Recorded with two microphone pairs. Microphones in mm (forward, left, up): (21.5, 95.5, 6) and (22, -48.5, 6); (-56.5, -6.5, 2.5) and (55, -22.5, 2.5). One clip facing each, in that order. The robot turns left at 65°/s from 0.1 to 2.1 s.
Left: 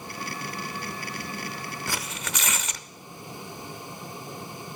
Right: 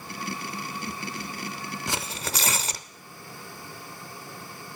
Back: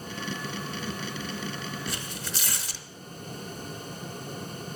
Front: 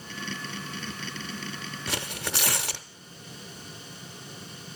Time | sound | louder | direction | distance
1.9 | tearing paper | right 3 dB, front 3 dB | 15° right | 0.6 m